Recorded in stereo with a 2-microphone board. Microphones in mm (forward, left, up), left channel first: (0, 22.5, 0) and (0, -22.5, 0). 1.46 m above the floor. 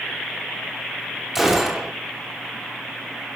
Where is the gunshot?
5° right (ahead or behind), 5.5 m.